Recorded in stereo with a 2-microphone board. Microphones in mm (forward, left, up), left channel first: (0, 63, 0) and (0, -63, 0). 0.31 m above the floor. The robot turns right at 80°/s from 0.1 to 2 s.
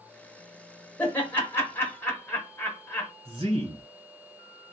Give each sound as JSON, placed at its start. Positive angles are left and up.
{"t": 1.0, "sound": "laughter", "side_deg": 10, "distance_m": 1.0}
{"t": 3.2, "sound": "a man speaking", "side_deg": -45, "distance_m": 1.8}